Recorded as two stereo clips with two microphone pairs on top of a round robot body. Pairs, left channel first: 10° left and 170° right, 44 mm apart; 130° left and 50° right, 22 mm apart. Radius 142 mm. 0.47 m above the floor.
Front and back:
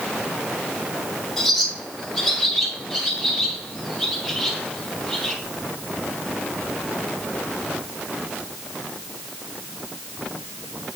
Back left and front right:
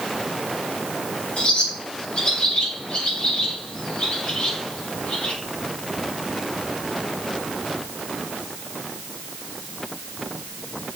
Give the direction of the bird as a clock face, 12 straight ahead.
9 o'clock.